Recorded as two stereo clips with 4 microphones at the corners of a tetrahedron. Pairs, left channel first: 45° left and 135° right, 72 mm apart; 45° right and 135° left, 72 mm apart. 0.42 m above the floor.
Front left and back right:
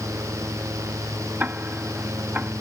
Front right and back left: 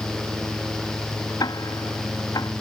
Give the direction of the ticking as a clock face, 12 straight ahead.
2 o'clock.